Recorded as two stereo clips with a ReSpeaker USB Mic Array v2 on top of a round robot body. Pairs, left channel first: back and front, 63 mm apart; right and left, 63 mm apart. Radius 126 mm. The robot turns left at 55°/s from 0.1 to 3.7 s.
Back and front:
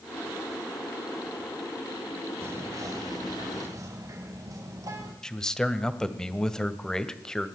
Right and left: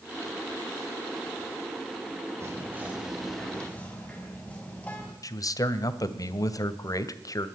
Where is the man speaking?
100° right, 2 m.